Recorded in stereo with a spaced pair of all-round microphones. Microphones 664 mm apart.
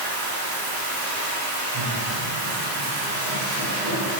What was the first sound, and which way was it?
Running water, 35° right (ahead or behind).